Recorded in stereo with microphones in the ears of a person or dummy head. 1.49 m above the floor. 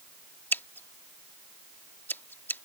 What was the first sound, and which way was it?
Scissors, 10° left (ahead or behind).